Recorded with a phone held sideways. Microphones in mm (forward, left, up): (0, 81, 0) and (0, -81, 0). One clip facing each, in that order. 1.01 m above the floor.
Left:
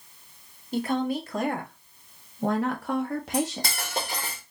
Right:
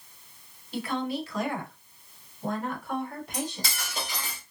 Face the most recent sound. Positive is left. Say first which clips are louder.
# left 6 dB
turn(degrees=50)  # may be behind; listen again after turning